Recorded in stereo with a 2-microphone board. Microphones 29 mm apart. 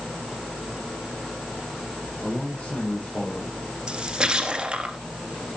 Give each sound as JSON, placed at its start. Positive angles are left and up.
{"t": 2.2, "sound": "a man speaking", "side_deg": 40, "distance_m": 5.0}
{"t": 3.9, "sound": "a splash", "side_deg": -30, "distance_m": 2.0}